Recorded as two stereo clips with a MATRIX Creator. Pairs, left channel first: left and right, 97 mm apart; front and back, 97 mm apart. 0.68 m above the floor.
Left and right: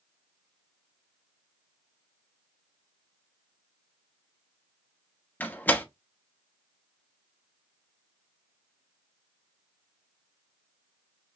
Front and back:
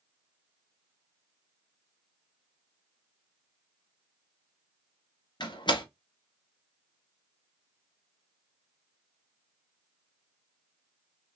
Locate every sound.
5.4 s a door slam: 20° left, 1.1 m